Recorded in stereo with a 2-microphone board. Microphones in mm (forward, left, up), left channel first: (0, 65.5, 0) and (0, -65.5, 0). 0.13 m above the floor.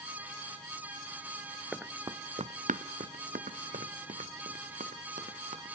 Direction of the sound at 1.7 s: 5° right (ahead or behind).